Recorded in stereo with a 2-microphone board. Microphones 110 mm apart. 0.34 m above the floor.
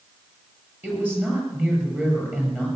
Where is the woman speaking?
15° right (ahead or behind), 7 m.